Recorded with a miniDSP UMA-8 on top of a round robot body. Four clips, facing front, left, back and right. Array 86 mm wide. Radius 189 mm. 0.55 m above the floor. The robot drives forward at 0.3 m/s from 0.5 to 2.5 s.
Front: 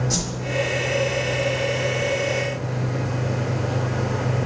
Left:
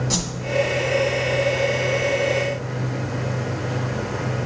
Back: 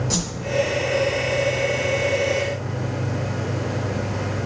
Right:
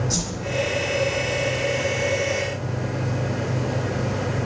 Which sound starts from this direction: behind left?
A whoosh, at 0.1 s.